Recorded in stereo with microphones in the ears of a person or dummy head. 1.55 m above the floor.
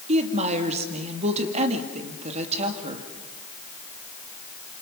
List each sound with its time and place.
0.1 s a woman speaking: 40° right (ahead or behind), 2.5 m